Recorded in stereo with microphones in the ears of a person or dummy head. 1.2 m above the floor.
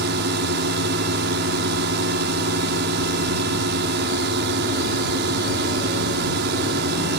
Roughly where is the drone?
Right.